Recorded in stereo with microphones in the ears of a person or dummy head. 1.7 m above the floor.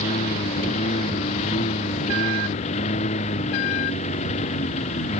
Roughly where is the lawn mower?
Left.